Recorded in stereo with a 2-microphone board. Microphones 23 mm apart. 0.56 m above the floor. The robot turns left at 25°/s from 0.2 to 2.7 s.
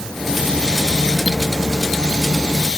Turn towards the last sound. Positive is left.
No sound to turn to.